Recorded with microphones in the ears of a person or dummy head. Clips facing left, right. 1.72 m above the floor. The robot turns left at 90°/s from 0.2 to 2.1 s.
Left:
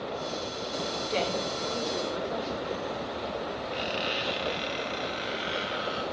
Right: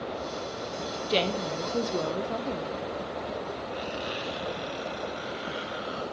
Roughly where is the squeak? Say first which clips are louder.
Left 1 dB; left.